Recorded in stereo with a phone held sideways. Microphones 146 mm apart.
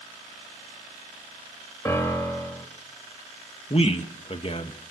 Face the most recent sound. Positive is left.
turn(degrees=40)  # may be behind; listen again after turning